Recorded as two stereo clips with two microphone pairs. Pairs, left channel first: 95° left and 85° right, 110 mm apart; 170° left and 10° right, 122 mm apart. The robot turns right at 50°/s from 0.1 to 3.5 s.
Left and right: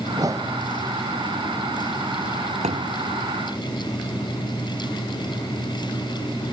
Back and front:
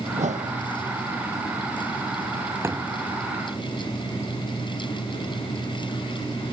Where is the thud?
80° right; by 3.0 s 65° right.